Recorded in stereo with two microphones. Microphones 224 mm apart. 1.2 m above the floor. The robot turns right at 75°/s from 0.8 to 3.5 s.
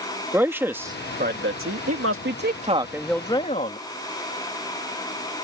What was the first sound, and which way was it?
A man speaking, 170° right.